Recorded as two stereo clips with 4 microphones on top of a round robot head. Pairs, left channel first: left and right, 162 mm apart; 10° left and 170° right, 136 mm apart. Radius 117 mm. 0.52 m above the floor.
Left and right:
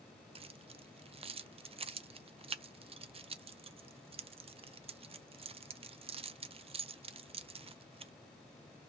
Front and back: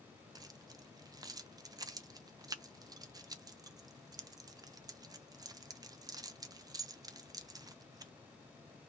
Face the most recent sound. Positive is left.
turn(degrees=-120)